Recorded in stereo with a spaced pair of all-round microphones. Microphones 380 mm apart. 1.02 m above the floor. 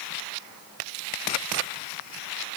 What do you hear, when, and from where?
Only background noise.